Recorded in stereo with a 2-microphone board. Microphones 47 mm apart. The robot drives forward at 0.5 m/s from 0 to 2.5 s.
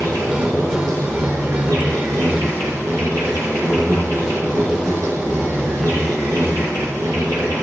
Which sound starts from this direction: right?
An insect, at 0.0 s.